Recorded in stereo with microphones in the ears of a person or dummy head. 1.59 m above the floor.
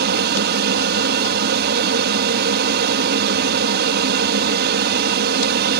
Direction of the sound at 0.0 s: 55° right (ahead or behind).